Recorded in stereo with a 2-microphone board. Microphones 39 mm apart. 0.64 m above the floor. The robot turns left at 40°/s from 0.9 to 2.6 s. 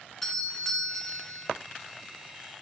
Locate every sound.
0.2 s a doorbell: 10° left (ahead or behind), 1.0 m; by 1.5 s centre (ahead or behind), 1.0 m